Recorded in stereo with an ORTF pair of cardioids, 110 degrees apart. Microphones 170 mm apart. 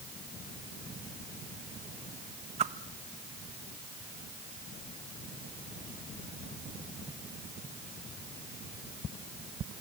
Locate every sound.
2.6 s a whoosh: 40° right, 0.9 m